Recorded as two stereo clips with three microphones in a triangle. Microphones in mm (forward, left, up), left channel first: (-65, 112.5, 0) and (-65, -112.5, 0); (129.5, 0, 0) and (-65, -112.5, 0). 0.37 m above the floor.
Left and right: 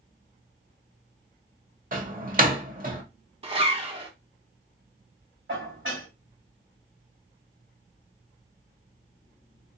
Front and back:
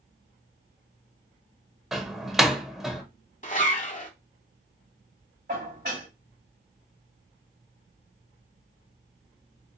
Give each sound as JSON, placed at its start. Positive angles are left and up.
{"t": 1.9, "sound": "a door slam", "azimuth_deg": -60, "distance_m": 0.9}
{"t": 3.4, "sound": "a zipper", "azimuth_deg": -25, "distance_m": 1.0}
{"t": 5.5, "sound": "dishes clattering", "azimuth_deg": -110, "distance_m": 1.6}